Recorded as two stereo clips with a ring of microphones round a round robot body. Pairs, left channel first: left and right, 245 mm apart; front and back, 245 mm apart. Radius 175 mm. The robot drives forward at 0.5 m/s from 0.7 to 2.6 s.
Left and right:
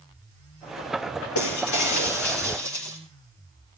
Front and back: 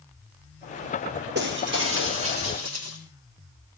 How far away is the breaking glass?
About 2.5 m.